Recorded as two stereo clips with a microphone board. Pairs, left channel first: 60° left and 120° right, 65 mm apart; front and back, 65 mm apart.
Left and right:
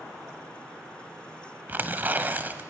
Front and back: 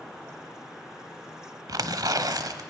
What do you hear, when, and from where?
1.7 s tearing paper: straight behind, 1.0 m